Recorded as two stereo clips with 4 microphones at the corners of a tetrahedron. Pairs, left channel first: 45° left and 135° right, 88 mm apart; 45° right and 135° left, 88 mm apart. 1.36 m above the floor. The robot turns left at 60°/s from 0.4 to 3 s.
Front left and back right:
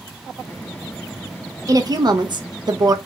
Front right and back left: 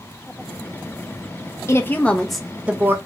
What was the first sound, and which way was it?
A woman speaking, 95° right.